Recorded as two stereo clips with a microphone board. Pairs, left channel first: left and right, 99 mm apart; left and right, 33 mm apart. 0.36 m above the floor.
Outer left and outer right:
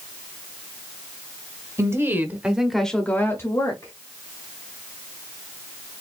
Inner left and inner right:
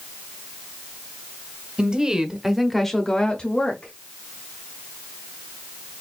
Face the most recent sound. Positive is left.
turn(degrees=40)  # may be behind; listen again after turning